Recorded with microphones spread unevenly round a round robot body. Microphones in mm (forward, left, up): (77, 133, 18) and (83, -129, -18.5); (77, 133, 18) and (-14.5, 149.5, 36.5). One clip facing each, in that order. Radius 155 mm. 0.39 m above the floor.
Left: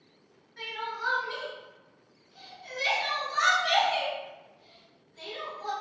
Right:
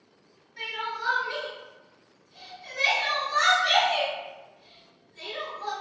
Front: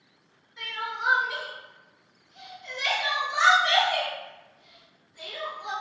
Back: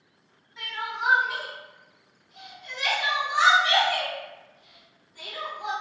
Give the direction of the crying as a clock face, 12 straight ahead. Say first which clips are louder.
Right 1 dB, back 1 dB; 6 o'clock.